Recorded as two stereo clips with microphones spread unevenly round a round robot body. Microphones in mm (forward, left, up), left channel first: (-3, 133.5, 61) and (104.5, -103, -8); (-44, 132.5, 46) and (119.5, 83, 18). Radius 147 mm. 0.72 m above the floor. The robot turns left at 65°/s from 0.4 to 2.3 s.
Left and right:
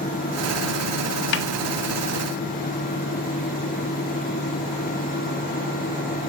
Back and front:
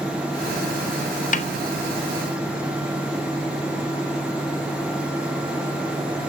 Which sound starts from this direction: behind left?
A snare drum, at 1.3 s.